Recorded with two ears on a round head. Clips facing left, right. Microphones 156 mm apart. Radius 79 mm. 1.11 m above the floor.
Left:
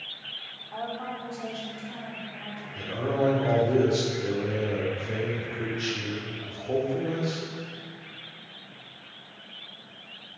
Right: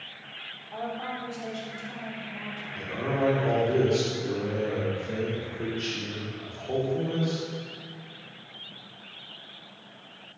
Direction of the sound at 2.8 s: 5° left (ahead or behind).